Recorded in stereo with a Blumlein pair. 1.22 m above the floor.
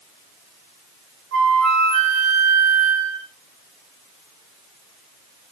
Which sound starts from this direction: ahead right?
A flute, at 1.3 s.